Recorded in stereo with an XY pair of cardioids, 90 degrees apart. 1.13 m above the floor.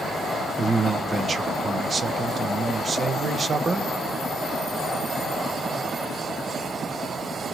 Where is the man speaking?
40° right, 0.7 m.